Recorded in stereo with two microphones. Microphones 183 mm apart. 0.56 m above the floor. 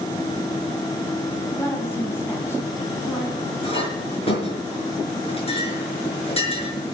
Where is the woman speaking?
10° left (ahead or behind), 4 m; by 3.5 s 15° left (ahead or behind), 6 m.